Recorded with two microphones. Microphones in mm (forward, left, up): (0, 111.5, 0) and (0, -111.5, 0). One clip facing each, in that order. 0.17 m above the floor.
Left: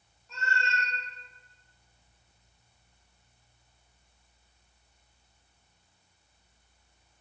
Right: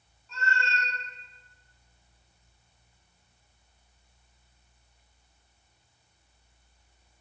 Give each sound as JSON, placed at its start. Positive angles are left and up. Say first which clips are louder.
{"t": 0.3, "sound": "a cat meowing", "louder": "right 1 dB", "side_deg": 25, "distance_m": 1.0}